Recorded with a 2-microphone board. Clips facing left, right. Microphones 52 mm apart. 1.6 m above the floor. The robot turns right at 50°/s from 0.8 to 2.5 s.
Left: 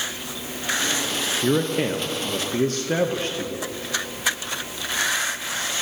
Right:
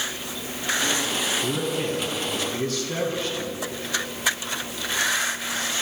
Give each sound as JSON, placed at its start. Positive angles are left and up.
{"t": 1.4, "sound": "a man speaking", "azimuth_deg": 80, "distance_m": 0.5}